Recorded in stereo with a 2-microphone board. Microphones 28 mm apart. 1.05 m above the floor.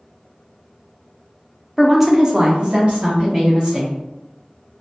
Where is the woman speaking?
5° right (ahead or behind), 0.6 m; by 4.0 s 30° right (ahead or behind), 1.3 m.